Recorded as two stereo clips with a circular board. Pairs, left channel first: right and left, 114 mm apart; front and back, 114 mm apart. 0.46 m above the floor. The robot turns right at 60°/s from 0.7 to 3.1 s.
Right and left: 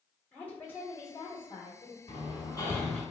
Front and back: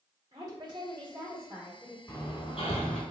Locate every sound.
0.3 s a woman speaking: 155° right, 1.1 m; by 2.0 s 80° right, 1.1 m
2.1 s hammering: 60° right, 0.9 m; by 3.0 s 5° right, 0.9 m